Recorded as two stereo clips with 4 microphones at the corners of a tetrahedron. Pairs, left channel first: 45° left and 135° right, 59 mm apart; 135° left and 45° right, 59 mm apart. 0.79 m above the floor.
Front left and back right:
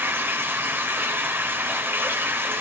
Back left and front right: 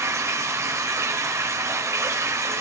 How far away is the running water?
About 1.8 m.